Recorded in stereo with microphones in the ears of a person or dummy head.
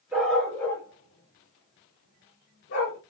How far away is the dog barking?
About 1.0 m.